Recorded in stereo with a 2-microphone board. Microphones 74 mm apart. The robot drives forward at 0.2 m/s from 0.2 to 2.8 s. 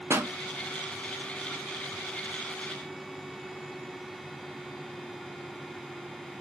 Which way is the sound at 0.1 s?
35° right (ahead or behind).